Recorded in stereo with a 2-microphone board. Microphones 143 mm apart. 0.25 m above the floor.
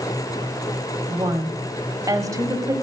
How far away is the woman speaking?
About 1.2 m.